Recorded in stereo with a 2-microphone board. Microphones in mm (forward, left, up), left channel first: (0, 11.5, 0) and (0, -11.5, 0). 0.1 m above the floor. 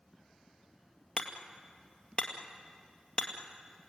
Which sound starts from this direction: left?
Hammering, at 1.2 s.